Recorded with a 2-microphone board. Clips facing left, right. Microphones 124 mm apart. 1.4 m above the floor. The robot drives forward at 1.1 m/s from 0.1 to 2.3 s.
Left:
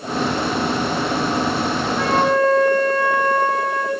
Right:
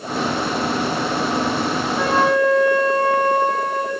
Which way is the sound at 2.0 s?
5° right (ahead or behind).